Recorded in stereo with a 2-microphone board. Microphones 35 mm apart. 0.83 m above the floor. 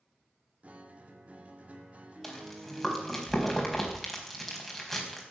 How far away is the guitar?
About 2 m.